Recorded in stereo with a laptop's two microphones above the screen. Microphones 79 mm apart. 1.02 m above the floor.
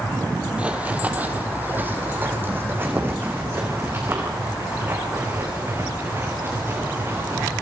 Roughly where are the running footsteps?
Centre.